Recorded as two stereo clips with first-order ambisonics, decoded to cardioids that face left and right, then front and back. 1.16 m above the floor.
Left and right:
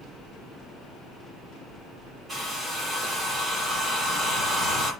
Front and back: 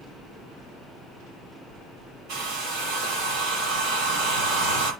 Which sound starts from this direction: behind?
A hair dryer, at 2.3 s.